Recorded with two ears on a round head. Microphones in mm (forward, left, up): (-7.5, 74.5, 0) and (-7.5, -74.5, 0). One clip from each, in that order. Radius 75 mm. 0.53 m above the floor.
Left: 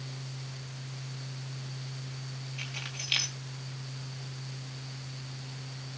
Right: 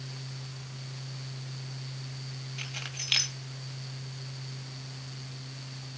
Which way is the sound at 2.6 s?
20° right (ahead or behind).